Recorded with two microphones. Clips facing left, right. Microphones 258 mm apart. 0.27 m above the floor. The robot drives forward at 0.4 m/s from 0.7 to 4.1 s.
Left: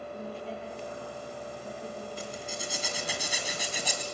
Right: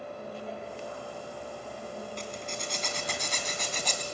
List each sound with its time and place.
0.1 s a woman speaking: 35° left (ahead or behind), 8 m; by 2.1 s 30° left (ahead or behind), 8.5 m
2.2 s a zipper: 10° left (ahead or behind), 2.5 m